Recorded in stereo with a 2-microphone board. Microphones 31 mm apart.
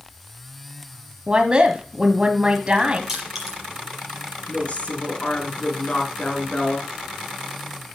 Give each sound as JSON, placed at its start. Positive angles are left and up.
{"t": 1.3, "sound": "a woman speaking", "side_deg": -30, "distance_m": 1.1}
{"t": 3.1, "sound": "crushing", "side_deg": -10, "distance_m": 5.0}
{"t": 4.5, "sound": "a woman speaking", "side_deg": 40, "distance_m": 3.5}